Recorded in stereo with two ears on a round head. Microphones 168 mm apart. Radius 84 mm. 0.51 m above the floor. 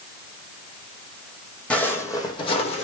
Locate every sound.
1.7 s footsteps: 5° left (ahead or behind), 1.2 m; by 2.9 s 40° left (ahead or behind), 1.2 m